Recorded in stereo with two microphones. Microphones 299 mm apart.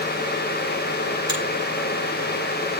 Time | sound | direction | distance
1.3 | a finger snap | 40° left (ahead or behind) | 9 m